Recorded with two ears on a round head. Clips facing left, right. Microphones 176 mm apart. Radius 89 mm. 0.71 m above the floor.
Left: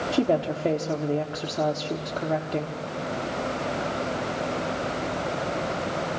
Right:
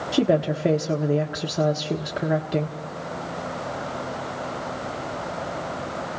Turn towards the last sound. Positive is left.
turn(degrees=-15)  # may be behind; listen again after turning